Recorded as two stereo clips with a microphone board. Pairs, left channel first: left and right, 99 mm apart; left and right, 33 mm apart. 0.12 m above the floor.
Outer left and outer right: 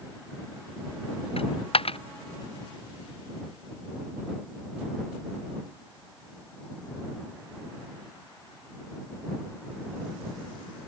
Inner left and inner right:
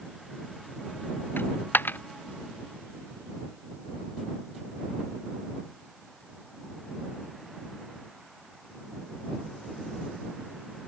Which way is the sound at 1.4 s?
75° left (ahead or behind).